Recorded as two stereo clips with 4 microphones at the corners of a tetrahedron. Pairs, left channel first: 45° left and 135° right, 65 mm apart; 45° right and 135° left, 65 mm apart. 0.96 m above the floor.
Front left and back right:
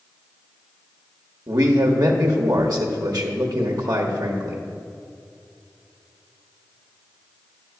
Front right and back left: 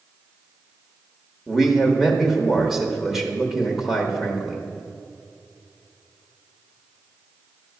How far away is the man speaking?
About 1.1 m.